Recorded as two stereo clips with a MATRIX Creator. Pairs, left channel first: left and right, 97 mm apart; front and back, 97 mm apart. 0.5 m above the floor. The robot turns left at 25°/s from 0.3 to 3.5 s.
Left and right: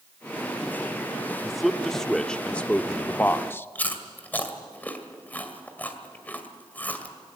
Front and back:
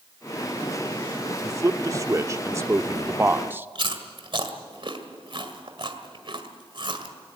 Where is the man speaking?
175° right, 0.7 m; by 3.7 s 130° left, 0.7 m.